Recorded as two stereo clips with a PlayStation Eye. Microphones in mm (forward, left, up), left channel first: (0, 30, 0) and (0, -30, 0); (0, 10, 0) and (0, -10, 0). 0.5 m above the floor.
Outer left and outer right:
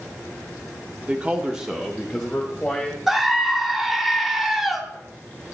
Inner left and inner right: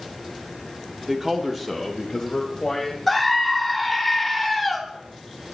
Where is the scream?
5° right (ahead or behind), 1.0 m.